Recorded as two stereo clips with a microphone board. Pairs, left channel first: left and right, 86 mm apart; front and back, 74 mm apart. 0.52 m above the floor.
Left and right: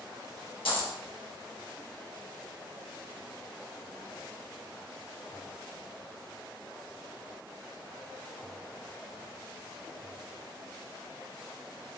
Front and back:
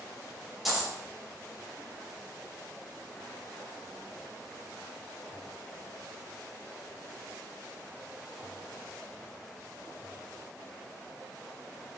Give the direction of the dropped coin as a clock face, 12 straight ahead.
9 o'clock.